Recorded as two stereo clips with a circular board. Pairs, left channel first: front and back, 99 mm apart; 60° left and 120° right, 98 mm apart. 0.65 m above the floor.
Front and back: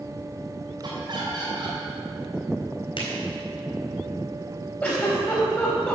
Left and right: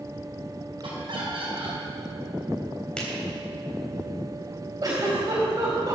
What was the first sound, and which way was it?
Laughter, 150° right.